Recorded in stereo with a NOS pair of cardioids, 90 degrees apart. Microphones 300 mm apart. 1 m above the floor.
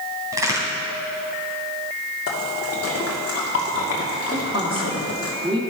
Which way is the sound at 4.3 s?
15° right.